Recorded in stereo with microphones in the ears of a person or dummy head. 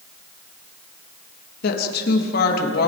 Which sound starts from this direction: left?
A woman speaking, at 1.6 s.